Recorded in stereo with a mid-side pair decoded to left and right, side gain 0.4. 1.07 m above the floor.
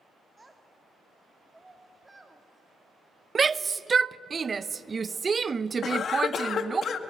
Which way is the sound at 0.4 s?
20° right.